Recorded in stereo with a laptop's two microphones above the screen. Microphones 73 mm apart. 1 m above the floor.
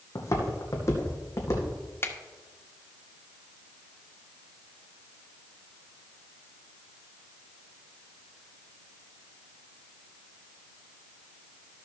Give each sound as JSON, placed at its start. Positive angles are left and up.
{"t": 0.1, "sound": "footsteps", "side_deg": 45, "distance_m": 2.0}
{"t": 2.0, "sound": "a finger snap", "side_deg": 35, "distance_m": 1.5}